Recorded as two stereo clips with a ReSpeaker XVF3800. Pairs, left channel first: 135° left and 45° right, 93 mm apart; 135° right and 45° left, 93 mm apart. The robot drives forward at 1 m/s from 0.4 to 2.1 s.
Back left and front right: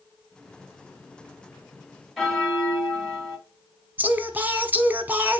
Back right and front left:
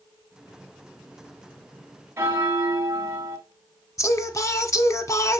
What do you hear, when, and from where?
2.2 s a bell: 50° left, 1.4 m
4.0 s singing: 100° right, 0.9 m